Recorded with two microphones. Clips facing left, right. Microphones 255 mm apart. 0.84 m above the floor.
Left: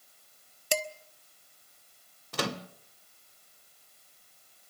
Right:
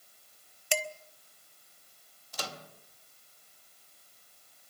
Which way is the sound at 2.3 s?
70° left (ahead or behind).